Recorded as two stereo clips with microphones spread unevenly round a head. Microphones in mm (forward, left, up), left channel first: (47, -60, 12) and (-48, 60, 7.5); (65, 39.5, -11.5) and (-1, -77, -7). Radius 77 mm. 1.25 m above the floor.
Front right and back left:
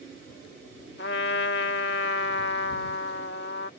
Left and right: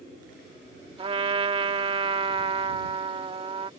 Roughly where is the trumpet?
Right.